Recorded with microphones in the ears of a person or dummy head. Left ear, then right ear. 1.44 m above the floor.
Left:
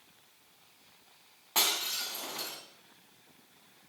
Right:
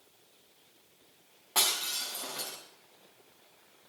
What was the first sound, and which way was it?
Breaking glass, 5° left (ahead or behind).